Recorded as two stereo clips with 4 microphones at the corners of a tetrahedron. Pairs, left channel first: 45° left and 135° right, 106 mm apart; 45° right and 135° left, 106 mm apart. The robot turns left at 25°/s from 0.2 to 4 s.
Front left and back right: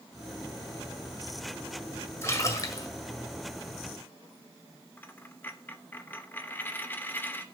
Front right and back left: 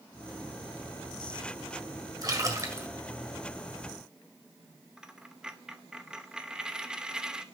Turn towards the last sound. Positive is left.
turn(degrees=65)